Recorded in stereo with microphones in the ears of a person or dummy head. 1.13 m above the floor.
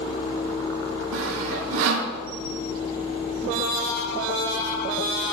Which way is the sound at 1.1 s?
65° right (ahead or behind).